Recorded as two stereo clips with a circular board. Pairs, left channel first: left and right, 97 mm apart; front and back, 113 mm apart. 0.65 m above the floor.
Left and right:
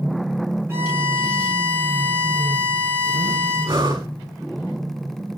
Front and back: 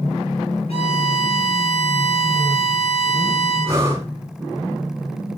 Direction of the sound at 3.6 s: 115° right.